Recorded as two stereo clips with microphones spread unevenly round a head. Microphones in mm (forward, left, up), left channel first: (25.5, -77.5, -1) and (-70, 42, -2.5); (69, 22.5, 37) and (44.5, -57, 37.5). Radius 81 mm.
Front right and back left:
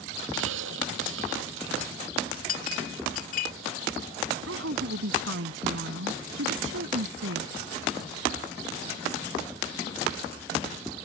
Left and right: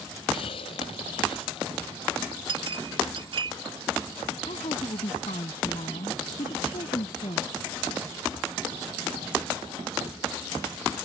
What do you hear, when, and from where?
0.3 s a hiss: 120° left
2.5 s a clink: 85° right
4.5 s a woman speaking: 120° left